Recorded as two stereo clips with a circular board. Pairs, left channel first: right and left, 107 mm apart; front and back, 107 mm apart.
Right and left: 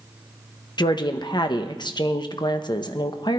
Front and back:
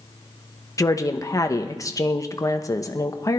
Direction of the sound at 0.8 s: 55° right.